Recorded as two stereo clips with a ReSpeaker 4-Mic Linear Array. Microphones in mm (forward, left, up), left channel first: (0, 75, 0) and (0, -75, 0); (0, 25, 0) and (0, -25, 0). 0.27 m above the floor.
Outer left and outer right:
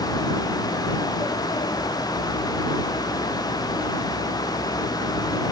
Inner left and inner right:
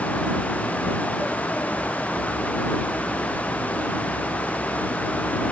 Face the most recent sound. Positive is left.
No sound to turn to.